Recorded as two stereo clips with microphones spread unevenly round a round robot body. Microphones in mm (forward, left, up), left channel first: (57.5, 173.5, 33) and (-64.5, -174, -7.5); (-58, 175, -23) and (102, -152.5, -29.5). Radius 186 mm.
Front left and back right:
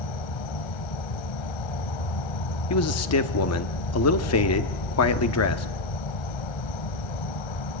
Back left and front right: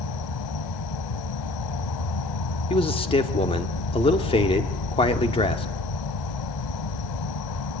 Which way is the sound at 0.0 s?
85° left.